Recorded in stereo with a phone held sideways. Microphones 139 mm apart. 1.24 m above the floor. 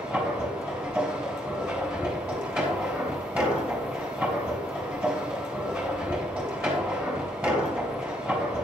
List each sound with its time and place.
0.0 s a machine running: 10° right (ahead or behind), 3.5 m